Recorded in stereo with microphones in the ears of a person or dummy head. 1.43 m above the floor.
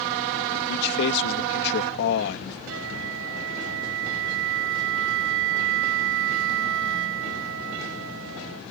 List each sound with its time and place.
0.7 s a man speaking: 65° left (ahead or behind)
2.7 s a flute: 70° right (ahead or behind)